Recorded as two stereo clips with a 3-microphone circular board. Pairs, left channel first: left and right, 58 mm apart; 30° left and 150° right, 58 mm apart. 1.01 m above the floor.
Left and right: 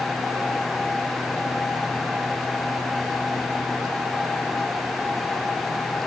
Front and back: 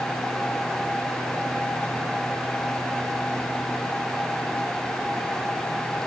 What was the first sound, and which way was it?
Only background noise.